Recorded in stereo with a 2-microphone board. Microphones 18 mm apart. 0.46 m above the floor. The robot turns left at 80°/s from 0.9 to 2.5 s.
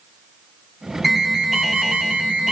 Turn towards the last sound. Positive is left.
turn(degrees=-110)